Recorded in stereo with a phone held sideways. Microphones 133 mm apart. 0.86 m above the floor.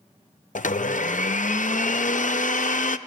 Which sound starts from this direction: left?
A blender, at 0.6 s.